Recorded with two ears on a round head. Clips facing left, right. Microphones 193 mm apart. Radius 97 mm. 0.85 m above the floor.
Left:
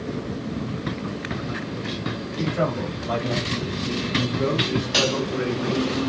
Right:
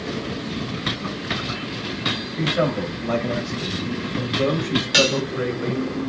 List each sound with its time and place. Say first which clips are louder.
2.4 s a man speaking: right 3 dB; 80° right, 7 m; by 5.9 s 75° right (ahead or behind), 5 m
4.9 s dishes clattering: right 4 dB; 20° right (ahead or behind), 0.9 m